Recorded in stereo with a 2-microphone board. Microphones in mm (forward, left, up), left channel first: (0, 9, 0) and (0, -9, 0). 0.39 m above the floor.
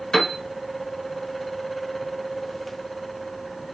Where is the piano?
35° left (ahead or behind), 0.9 m.